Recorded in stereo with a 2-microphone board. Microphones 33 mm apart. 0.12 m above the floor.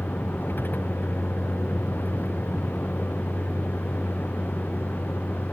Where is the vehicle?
80° left; by 5.5 s 75° left (ahead or behind).